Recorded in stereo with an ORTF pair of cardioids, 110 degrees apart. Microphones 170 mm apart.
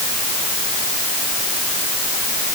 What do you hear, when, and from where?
Only background noise.